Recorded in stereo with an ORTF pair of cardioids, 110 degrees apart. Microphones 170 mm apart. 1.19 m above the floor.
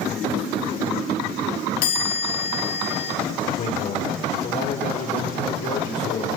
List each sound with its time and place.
1.8 s a chime: 70° left, 6.5 m
3.5 s a man speaking: 65° left, 4 m